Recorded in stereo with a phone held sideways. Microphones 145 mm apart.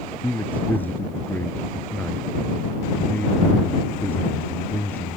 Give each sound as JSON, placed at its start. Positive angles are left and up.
{"t": 0.2, "sound": "a man speaking", "side_deg": 10}